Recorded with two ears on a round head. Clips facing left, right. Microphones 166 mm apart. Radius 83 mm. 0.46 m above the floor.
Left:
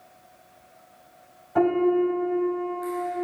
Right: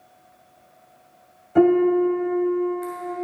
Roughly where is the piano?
Right.